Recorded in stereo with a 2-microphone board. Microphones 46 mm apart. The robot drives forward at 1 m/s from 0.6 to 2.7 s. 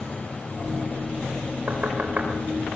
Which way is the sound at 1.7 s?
35° right (ahead or behind).